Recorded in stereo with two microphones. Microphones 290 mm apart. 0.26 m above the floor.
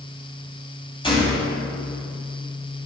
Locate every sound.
1.0 s a gunshot: 20° left (ahead or behind), 2.0 m